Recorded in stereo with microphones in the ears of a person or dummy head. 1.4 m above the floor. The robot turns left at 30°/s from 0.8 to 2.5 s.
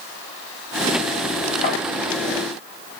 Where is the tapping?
35° left (ahead or behind), 1.4 m.